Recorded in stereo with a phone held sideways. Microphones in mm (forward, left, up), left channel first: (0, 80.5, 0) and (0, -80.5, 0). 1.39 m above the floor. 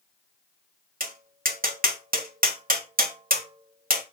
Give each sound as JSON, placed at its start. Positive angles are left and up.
{"t": 1.0, "sound": "tapping", "side_deg": -60, "distance_m": 1.8}